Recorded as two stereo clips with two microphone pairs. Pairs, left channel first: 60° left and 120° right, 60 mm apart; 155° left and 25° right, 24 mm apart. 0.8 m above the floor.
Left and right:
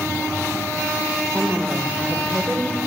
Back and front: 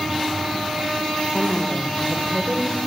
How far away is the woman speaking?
About 3.5 m.